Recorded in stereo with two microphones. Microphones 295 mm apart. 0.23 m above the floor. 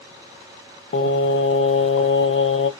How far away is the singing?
About 0.5 m.